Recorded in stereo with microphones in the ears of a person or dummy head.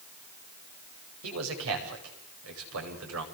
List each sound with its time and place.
1.2 s a man speaking: 85° right, 9.5 m